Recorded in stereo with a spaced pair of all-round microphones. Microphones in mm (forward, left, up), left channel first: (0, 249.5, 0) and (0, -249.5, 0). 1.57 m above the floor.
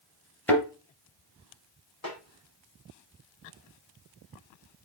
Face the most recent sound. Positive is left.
turn(degrees=35)  # may be behind; listen again after turning